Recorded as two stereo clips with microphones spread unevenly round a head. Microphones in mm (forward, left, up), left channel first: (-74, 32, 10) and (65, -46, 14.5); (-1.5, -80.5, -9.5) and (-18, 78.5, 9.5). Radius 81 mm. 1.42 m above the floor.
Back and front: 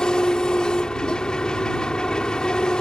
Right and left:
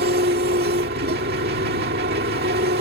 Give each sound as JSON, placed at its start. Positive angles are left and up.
{"t": 0.0, "sound": "an engine running", "azimuth_deg": 65}